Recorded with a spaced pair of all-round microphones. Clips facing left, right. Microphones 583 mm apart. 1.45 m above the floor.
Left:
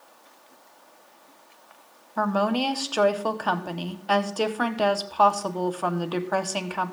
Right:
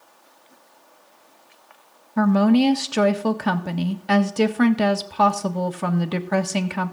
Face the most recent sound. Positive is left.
turn(degrees=-50)  # may be behind; listen again after turning